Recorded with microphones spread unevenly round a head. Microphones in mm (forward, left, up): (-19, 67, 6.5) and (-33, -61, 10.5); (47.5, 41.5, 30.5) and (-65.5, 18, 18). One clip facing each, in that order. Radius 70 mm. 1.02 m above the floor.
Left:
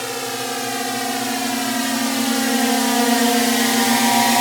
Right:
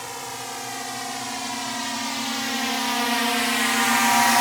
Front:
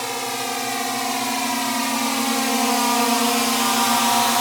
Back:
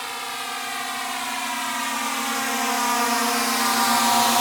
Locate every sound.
0.0 s a drone: 55° left; by 4.4 s 115° left